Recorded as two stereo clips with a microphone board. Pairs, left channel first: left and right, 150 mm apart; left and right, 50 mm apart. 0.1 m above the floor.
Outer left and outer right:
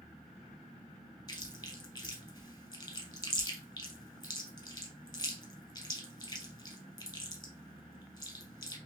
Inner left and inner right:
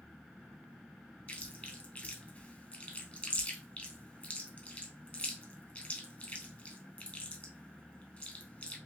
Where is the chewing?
30° left (ahead or behind), 1.2 m.